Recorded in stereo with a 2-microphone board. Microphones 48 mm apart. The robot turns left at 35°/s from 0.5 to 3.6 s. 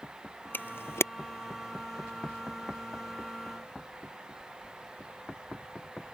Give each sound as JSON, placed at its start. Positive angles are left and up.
{"t": 0.5, "sound": "a camera shutter", "side_deg": 40}